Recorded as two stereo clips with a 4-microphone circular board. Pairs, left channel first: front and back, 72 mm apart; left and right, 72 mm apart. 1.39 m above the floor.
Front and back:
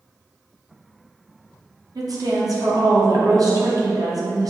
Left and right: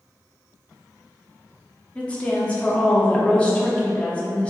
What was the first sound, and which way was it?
A woman speaking, 160° left.